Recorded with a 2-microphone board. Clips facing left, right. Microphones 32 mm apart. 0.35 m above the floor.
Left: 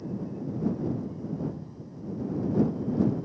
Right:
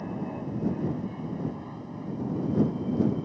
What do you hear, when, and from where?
0.0 s an aircraft: 55° right (ahead or behind)